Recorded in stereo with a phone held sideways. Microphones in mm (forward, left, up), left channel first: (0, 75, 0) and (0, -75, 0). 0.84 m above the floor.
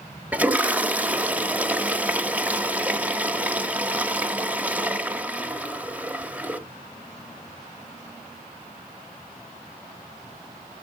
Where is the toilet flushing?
10° right (ahead or behind), 1.1 m.